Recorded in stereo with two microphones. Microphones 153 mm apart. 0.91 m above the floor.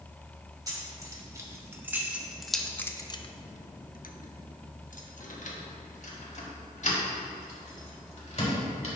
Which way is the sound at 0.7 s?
25° right (ahead or behind).